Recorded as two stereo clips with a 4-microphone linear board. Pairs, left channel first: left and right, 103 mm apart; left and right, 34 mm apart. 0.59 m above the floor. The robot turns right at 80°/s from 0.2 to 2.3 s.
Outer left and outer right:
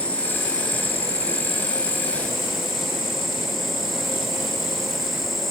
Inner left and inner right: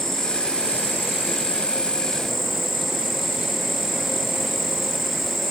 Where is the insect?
15° left, 0.9 m; by 5.5 s straight behind, 0.9 m.